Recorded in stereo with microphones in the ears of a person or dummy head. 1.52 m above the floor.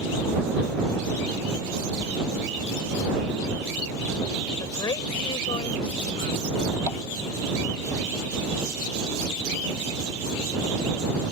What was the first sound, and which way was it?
A woman speaking, 25° left (ahead or behind).